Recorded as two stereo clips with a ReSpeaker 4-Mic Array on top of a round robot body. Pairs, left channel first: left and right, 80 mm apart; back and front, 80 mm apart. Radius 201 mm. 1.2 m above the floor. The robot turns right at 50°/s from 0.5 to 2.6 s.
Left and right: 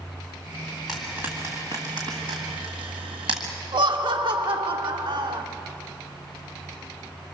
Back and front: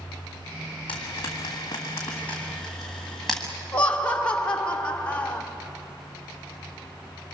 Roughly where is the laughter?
Right.